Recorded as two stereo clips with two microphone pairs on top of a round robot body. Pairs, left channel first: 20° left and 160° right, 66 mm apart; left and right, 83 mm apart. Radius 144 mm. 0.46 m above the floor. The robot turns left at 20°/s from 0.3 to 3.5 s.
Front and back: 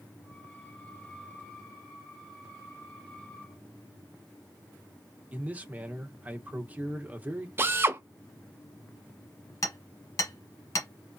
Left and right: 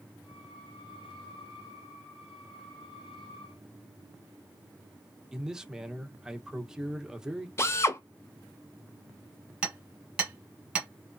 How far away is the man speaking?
About 1.2 m.